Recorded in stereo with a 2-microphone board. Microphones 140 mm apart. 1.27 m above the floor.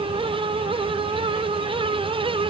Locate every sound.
Only background noise.